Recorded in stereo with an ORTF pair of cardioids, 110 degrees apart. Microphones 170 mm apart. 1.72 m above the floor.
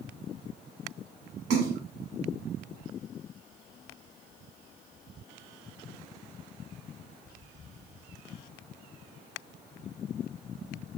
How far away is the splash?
About 1.6 m.